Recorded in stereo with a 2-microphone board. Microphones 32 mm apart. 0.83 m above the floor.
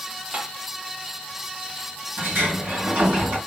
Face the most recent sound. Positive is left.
turn(degrees=-70)  # may be behind; listen again after turning